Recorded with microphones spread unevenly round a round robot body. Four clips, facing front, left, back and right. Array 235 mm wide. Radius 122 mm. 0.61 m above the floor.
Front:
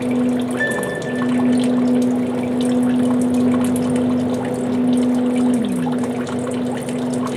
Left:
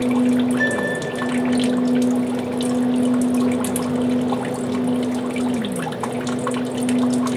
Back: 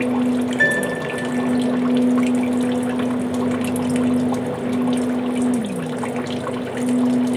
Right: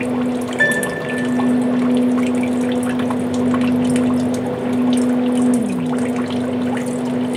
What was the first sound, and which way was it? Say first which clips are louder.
A piano: right 2 dB, back 1 dB; 140° right.